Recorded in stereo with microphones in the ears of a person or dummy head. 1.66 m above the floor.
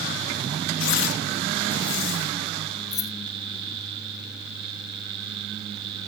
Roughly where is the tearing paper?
Left.